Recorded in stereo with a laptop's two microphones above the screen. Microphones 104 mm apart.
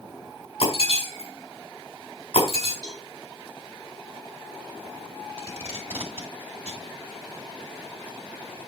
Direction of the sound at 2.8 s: 40° right (ahead or behind).